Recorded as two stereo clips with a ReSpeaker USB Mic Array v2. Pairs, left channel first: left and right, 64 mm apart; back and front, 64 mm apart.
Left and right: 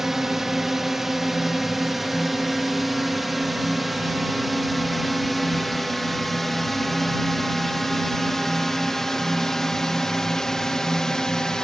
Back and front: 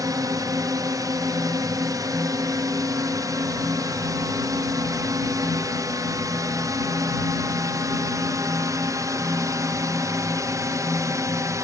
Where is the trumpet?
No trumpet in this recording.